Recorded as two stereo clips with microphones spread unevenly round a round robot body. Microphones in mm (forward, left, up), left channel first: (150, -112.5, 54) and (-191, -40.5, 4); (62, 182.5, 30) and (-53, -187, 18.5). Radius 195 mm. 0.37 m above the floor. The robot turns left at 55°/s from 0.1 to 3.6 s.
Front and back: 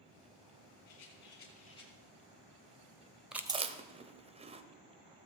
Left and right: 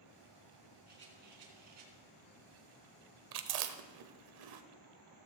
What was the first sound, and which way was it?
A rattle, 40° right.